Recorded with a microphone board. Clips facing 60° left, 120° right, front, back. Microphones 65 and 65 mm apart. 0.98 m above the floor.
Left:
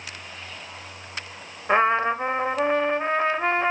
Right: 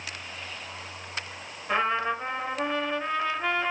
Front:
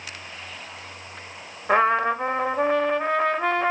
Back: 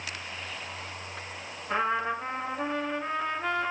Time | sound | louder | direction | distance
1.7 | a trumpet | left 6 dB, front 8 dB | 15° left | 1.7 m